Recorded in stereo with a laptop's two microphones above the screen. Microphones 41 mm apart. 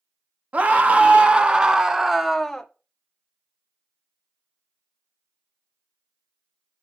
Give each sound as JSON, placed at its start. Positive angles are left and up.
{"t": 0.5, "sound": "a scream", "side_deg": -35, "distance_m": 1.4}